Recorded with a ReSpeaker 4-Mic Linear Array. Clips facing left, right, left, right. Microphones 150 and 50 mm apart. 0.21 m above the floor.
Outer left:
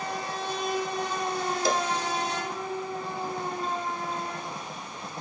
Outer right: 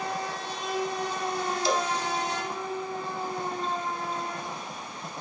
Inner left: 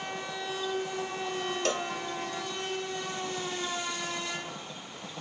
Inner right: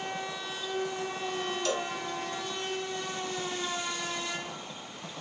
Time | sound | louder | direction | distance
1.6 | a cowbell | even, inner left 1 dB | 50° left (ahead or behind) | 0.8 m